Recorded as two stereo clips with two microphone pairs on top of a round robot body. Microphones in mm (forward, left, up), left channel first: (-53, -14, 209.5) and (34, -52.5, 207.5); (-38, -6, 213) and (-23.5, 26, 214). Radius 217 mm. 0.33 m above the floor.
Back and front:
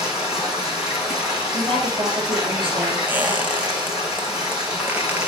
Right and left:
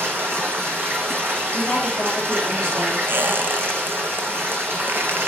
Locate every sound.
0.0 s running water: 60° left, 4 m
1.5 s a woman speaking: 50° right, 3 m
3.1 s a squeak: 45° left, 0.8 m